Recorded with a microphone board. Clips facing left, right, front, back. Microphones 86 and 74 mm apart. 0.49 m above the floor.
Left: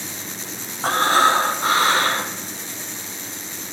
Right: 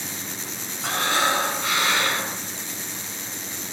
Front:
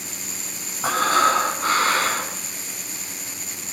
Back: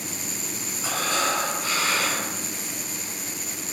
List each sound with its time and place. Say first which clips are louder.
0.8 s breathing: left 7 dB, front 8 dB; 40° left, 5.5 m